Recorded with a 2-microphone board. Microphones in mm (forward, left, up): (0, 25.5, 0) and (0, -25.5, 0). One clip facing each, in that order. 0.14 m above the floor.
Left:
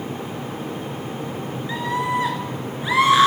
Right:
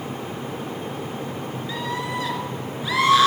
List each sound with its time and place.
1.7 s a scream: 25° left (ahead or behind), 2 m